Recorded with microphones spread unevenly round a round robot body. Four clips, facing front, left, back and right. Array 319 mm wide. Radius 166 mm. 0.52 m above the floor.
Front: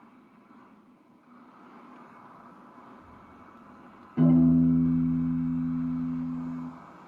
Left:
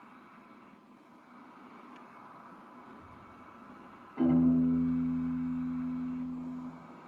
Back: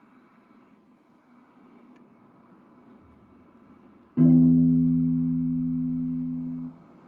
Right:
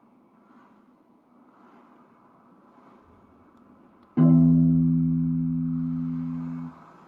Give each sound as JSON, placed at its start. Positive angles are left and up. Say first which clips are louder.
{"t": 2.9, "sound": "a child speaking", "louder": "left 2 dB, front 3 dB", "azimuth_deg": 120, "distance_m": 7.0}
{"t": 4.2, "sound": "a piano", "louder": "right 7 dB, back 3 dB", "azimuth_deg": -110, "distance_m": 6.0}